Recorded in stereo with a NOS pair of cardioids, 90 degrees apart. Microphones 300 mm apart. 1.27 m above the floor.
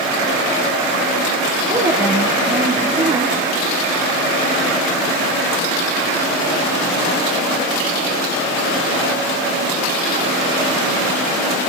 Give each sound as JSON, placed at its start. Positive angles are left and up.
{"t": 1.7, "sound": "a woman speaking", "azimuth_deg": -20, "distance_m": 3.5}